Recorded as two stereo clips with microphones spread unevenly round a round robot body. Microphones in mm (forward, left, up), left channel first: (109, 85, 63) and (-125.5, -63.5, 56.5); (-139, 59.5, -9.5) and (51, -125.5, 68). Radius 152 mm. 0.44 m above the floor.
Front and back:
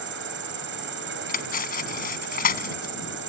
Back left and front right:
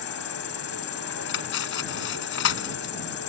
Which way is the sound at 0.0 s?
170° left.